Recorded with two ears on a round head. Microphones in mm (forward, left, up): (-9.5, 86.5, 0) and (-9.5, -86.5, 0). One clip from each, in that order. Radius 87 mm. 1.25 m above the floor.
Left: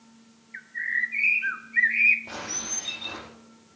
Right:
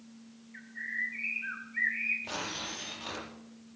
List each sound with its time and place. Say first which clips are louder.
0.5 s a bird: left 8 dB; 60° left (ahead or behind), 1.0 m
2.2 s tearing paper: left 3 dB; 50° right (ahead or behind), 5.5 m